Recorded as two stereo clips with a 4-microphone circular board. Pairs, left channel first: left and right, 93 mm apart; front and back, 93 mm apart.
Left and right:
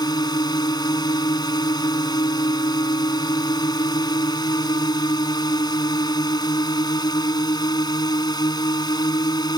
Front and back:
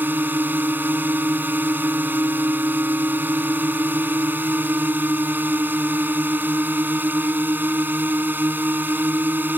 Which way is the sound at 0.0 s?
115° left.